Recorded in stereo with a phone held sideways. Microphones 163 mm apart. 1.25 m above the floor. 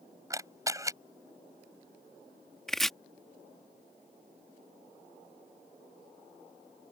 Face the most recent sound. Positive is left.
turn(degrees=5)  # may be behind; listen again after turning